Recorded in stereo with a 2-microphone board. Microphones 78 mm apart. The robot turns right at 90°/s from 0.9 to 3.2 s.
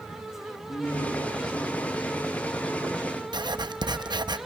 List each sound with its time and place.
0.7 s a man speaking: 40° left, 8.5 m; by 3.2 s 110° right, 8.5 m
3.3 s writing: 60° right (ahead or behind), 0.7 m